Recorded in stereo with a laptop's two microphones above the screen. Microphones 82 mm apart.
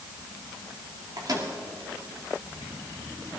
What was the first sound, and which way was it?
A microwave, 55° right (ahead or behind).